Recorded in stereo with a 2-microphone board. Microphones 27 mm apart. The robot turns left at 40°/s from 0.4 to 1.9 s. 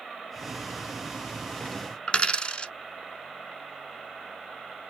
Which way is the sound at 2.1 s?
40° left (ahead or behind).